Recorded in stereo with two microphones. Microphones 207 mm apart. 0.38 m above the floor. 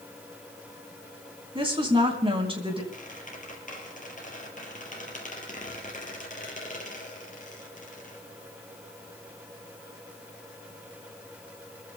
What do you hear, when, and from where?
1.6 s a woman speaking: 25° right (ahead or behind), 4 m
2.9 s a squeak: 40° left (ahead or behind), 4 m